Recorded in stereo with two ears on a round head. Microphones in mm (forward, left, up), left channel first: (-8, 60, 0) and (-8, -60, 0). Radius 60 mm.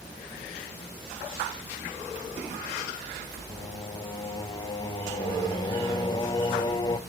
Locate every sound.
3.5 s singing: 30° left (ahead or behind), 0.7 m